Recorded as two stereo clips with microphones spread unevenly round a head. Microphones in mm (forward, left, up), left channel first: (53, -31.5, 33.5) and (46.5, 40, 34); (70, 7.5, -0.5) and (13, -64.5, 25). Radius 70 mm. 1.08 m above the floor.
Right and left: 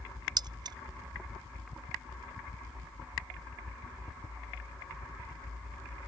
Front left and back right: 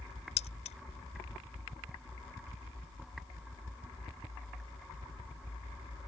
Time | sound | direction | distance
0.4 | keys jangling | 75° left | ?